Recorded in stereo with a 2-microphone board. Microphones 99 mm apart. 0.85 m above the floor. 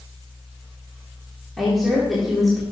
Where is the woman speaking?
Centre (ahead or behind), 1.8 m.